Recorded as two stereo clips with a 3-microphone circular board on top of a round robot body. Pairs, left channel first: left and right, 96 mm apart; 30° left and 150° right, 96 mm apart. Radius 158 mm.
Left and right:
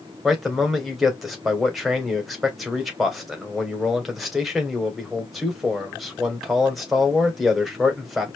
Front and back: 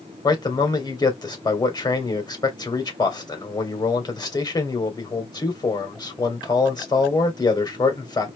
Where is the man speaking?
Straight ahead, 2.5 m.